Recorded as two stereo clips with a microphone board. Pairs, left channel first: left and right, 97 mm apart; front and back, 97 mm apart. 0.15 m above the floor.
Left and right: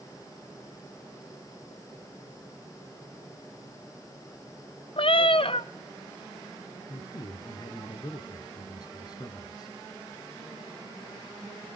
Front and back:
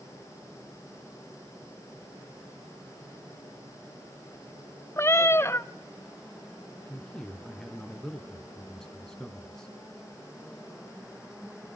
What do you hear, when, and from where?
5.0 s a cat meowing: 65° left, 0.6 m
6.9 s a man speaking: 85° left, 2 m